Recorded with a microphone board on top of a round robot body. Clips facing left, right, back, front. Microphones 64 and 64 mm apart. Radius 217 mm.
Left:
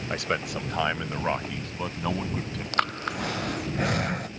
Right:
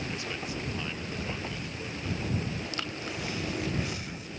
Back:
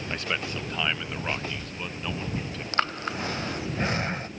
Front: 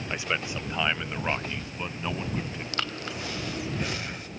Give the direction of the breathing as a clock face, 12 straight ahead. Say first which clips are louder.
Left 9 dB, back 7 dB; 8 o'clock.